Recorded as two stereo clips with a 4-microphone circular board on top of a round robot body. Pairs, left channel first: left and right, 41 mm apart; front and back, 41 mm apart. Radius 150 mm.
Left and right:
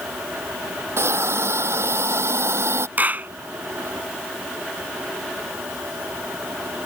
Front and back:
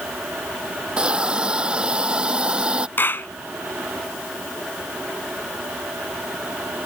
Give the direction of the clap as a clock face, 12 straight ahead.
1 o'clock.